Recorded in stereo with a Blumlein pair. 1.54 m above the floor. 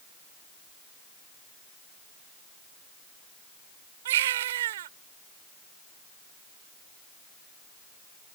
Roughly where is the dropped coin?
I don't hear a dropped coin.